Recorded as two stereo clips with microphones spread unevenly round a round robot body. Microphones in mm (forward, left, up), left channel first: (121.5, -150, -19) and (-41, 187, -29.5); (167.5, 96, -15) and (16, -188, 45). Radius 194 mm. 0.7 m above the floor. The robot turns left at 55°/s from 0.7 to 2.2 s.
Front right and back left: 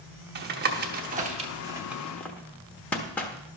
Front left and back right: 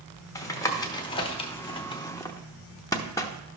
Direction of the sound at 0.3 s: 105° left.